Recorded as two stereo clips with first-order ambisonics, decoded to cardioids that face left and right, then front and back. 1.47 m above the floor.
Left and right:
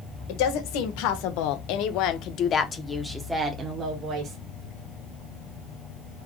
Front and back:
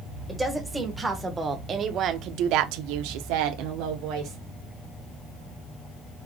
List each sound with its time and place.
0.3 s a woman speaking: 90° left, 1.6 m; by 4.4 s 145° right, 1.2 m